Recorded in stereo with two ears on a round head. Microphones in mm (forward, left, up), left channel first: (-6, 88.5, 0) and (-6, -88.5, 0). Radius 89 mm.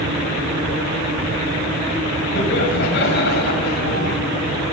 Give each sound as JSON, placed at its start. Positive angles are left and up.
{"t": 2.4, "sound": "laughter", "side_deg": 65, "distance_m": 4.0}